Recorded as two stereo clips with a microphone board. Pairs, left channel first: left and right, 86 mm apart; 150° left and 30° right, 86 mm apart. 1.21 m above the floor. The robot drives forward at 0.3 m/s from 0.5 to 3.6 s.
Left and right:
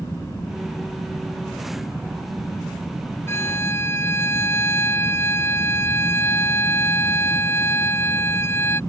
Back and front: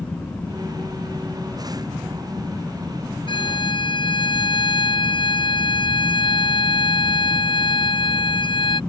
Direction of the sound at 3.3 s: 150° left.